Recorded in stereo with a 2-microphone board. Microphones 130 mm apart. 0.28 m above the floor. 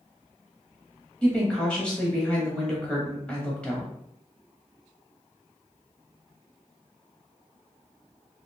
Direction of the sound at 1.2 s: 10° left (ahead or behind).